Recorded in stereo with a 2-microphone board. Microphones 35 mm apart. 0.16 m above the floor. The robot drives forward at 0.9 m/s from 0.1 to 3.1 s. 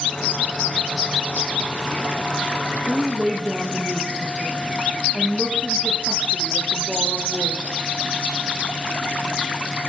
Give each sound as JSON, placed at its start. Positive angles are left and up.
{"t": 2.9, "sound": "a woman speaking", "side_deg": 10, "distance_m": 3.5}